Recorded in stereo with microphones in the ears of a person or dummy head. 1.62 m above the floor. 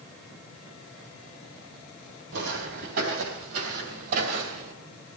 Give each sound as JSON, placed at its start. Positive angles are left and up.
{"t": 2.3, "sound": "footsteps", "side_deg": -65, "distance_m": 4.0}